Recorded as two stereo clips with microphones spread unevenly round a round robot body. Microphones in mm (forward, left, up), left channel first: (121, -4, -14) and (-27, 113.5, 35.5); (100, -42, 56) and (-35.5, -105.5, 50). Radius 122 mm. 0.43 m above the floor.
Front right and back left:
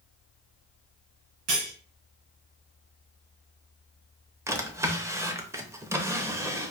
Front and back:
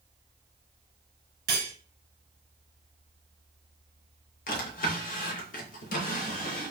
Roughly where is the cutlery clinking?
Behind.